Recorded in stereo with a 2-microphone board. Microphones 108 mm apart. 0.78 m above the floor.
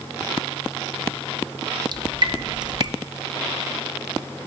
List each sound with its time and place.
1.9 s dripping: 40° right (ahead or behind), 0.6 m